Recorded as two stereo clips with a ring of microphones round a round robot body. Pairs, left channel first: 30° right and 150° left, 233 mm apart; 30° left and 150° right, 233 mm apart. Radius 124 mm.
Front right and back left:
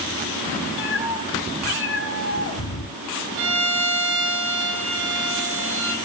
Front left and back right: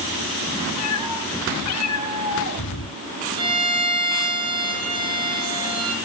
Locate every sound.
0.8 s a cat meowing: 10° left, 2.5 m
3.4 s a violin: 170° right, 3 m